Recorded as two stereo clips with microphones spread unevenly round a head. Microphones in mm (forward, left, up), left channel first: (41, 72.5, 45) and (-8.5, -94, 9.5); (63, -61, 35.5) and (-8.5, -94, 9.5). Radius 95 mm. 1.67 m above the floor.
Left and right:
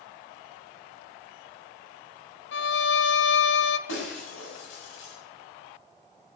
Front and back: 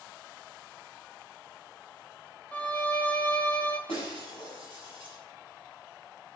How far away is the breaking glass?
About 6 m.